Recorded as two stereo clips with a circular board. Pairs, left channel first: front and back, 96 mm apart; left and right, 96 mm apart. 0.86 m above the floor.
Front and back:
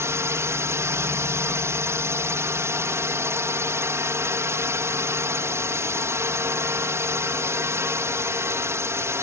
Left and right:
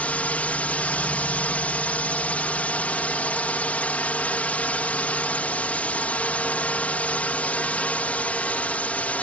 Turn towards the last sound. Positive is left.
turn(degrees=150)